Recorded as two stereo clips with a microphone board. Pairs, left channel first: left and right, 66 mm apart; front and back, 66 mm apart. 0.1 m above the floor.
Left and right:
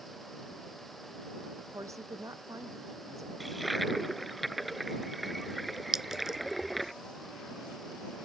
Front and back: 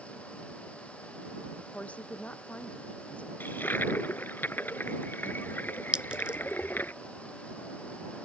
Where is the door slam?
I don't hear a door slam.